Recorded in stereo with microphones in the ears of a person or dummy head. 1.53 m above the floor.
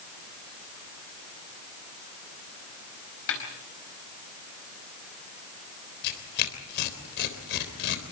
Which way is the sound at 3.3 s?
70° left (ahead or behind).